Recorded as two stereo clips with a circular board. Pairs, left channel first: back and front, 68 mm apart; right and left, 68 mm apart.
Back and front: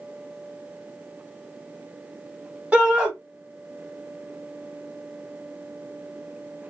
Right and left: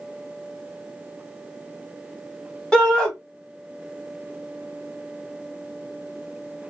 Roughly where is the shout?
Ahead right.